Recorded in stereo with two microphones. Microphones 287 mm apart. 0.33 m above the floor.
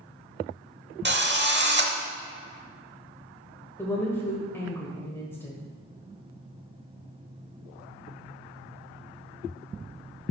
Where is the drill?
40° right (ahead or behind), 0.8 m.